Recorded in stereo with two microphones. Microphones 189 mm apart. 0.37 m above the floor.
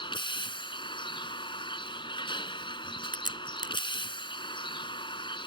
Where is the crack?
45° right (ahead or behind).